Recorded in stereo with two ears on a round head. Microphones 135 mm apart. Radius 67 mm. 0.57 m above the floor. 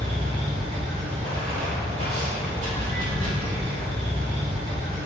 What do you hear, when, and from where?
0.0 s running water: 50° right (ahead or behind), 1.3 m